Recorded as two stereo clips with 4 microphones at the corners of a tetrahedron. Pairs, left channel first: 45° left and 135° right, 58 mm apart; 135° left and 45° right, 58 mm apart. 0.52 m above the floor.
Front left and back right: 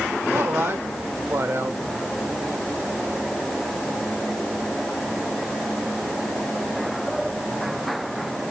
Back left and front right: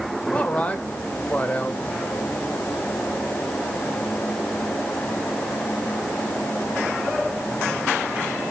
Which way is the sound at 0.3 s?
170° right.